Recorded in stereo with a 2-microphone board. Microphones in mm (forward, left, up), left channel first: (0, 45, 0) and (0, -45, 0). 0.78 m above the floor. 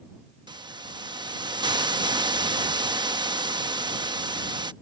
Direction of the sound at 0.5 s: 55° right (ahead or behind).